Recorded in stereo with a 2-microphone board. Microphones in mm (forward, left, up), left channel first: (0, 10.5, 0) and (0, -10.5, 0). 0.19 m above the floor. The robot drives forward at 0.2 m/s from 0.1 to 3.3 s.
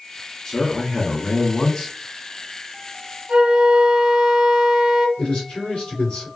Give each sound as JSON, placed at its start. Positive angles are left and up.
{"t": 0.5, "sound": "a man speaking", "side_deg": 30, "distance_m": 1.5}
{"t": 3.3, "sound": "a flute", "side_deg": -35, "distance_m": 0.9}
{"t": 5.2, "sound": "a man speaking", "side_deg": 55, "distance_m": 2.0}